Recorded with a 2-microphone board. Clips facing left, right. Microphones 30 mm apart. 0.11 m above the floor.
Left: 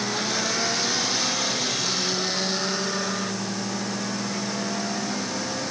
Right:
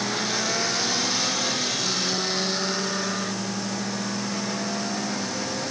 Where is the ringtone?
No ringtone in this recording.